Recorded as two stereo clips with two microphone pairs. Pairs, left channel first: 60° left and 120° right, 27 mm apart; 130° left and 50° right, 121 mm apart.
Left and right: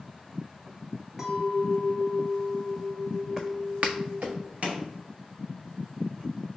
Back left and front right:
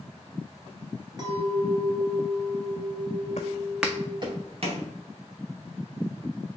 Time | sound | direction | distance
1.2 | a clink | 65° right | 0.8 m
3.4 | footsteps | 160° left | 0.6 m